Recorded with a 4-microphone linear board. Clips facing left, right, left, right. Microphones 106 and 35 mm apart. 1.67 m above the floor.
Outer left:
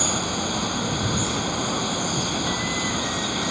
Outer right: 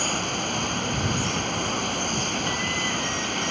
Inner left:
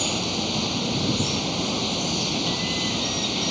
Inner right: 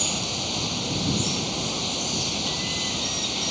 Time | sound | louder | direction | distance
0.0 | running water | outer left 2 dB, inner left 3 dB | 5° left (ahead or behind) | ?